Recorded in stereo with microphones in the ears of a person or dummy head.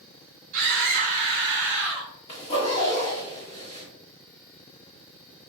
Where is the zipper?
30° left (ahead or behind), 1.4 m.